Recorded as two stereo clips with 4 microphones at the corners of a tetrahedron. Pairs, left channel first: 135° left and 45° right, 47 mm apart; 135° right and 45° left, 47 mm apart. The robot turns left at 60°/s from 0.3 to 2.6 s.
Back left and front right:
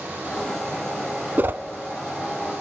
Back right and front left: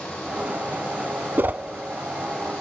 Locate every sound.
1.4 s a whoosh: straight ahead, 0.7 m; by 1.6 s 15° right, 0.7 m